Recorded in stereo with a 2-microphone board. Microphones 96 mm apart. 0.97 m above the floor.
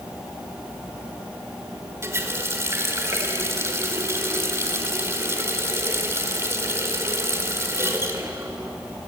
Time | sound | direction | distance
2.0 | a running tap | 30° right (ahead or behind) | 2 m